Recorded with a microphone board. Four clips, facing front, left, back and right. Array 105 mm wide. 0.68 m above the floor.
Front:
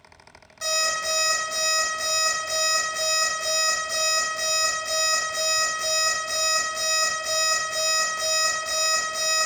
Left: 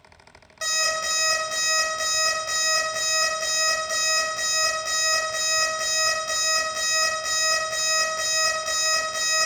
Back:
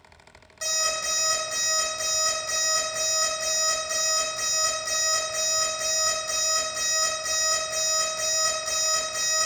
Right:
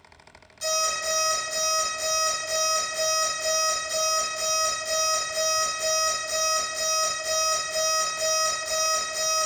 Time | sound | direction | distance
0.6 | an alarm clock | 95° left | 1.7 m